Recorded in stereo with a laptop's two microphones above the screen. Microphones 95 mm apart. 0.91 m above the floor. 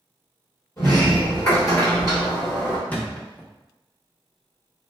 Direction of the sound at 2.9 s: 15° left (ahead or behind).